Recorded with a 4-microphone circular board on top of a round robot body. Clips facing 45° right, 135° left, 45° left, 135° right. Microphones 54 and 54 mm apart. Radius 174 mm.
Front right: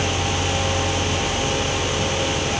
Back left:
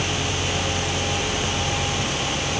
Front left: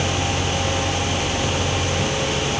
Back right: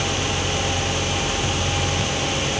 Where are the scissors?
No scissors in this recording.